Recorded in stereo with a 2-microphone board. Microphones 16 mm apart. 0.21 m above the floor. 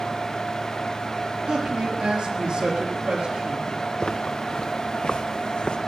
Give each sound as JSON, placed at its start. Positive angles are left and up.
{"t": 1.5, "sound": "a man speaking", "side_deg": -60, "distance_m": 4.5}
{"t": 4.0, "sound": "footsteps", "side_deg": 60, "distance_m": 1.6}